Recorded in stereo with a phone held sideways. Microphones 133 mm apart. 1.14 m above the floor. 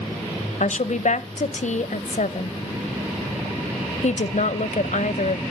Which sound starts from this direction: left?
A woman speaking, at 0.6 s.